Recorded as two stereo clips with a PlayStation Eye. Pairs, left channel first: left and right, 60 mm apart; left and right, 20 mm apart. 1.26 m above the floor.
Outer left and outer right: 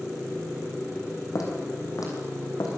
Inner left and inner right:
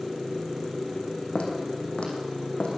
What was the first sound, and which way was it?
Footsteps, 70° left (ahead or behind).